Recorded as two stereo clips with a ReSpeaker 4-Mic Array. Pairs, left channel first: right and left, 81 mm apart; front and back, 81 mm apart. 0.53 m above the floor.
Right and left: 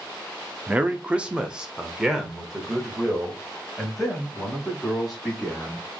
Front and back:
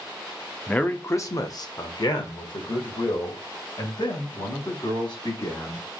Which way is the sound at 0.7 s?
60° left.